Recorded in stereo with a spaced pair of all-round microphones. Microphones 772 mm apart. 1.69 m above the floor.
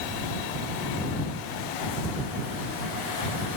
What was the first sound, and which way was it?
Only background noise.